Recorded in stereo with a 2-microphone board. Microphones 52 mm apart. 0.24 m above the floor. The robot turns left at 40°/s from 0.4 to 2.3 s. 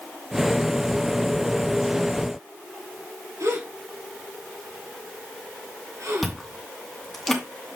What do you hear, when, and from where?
3.4 s a gasp: 80° right, 3.5 m
6.2 s chewing: centre (ahead or behind), 2.5 m